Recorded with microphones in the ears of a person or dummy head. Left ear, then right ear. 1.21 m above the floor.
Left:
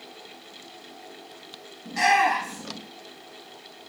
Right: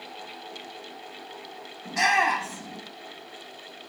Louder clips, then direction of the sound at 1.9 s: Left 2 dB; 15° right (ahead or behind).